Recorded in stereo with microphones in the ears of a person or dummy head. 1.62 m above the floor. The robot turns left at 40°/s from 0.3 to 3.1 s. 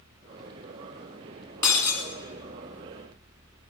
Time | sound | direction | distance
1.6 | breaking glass | 15° left (ahead or behind) | 1.5 m